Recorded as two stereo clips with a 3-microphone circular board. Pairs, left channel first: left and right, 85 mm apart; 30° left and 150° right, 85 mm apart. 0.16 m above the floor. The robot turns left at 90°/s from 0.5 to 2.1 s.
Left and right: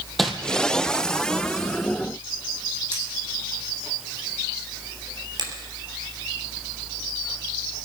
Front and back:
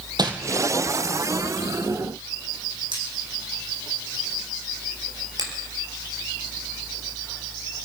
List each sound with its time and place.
0.2 s crumpling: straight behind, 1.7 m
2.9 s cutlery clinking: 155° right, 4.5 m
5.4 s a finger snap: 120° right, 3.5 m